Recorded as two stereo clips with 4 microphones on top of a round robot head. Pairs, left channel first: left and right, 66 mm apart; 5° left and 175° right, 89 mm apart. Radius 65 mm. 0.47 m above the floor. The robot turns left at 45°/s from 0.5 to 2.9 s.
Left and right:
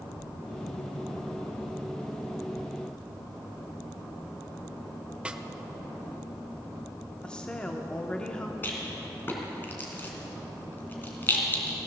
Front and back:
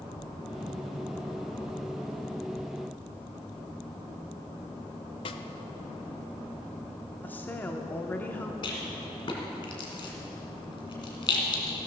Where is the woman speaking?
35° left, 0.8 m.